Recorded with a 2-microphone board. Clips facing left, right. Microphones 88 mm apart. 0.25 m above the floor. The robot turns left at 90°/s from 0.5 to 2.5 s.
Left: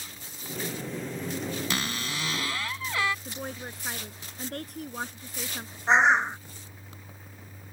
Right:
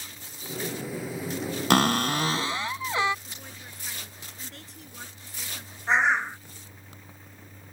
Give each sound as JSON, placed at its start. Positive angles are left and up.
{"t": 1.7, "sound": "a cupboard door", "azimuth_deg": -85}
{"t": 3.2, "sound": "a woman speaking", "side_deg": 55}
{"t": 5.9, "sound": "a bird", "side_deg": 20}